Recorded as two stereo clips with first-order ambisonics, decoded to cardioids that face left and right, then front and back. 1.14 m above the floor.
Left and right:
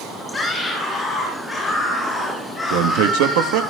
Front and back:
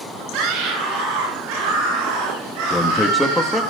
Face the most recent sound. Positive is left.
turn(degrees=-90)